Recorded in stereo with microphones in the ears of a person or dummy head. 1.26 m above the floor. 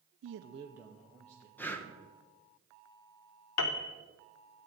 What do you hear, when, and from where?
0.2 s a man speaking: 60° right (ahead or behind), 0.6 m; by 1.5 s 10° left (ahead or behind), 1.7 m
1.6 s breathing: 10° left (ahead or behind), 1.0 m
3.6 s a piano: 70° left (ahead or behind), 0.8 m